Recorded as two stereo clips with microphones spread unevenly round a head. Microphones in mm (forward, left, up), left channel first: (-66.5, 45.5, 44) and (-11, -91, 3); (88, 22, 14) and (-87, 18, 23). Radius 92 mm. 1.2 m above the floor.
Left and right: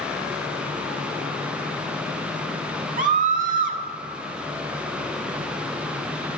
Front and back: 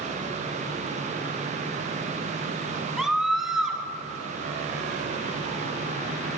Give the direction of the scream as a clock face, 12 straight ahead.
3 o'clock.